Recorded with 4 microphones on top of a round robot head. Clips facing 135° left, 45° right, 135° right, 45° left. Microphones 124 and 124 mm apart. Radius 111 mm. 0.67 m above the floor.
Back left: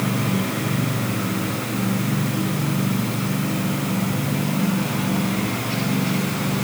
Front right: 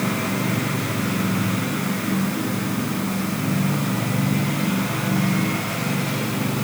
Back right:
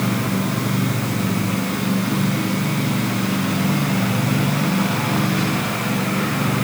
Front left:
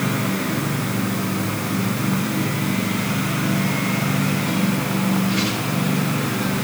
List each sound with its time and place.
Only background noise.